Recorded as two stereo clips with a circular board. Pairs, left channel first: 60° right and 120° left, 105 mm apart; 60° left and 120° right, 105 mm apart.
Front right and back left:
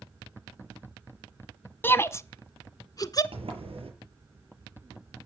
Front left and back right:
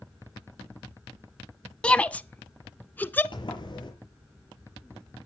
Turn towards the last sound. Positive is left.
turn(degrees=100)